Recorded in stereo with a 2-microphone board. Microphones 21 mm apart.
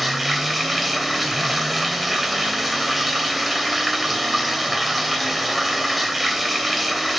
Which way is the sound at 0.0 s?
Centre (ahead or behind).